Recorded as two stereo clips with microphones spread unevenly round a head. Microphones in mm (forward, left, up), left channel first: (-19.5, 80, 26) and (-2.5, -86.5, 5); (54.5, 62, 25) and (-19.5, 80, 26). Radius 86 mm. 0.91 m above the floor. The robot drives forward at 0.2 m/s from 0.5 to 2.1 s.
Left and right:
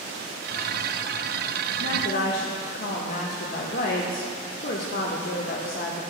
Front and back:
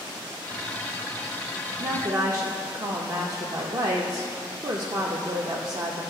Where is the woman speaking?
130° left, 0.7 m; by 6.0 s 135° left, 0.7 m.